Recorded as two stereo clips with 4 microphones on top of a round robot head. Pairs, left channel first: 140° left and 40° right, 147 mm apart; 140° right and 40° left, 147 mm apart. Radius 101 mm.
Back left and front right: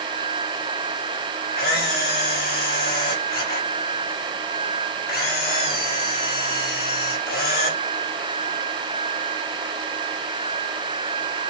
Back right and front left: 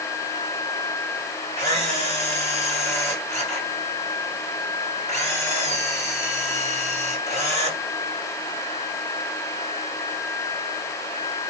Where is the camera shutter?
145° left, 6.5 m.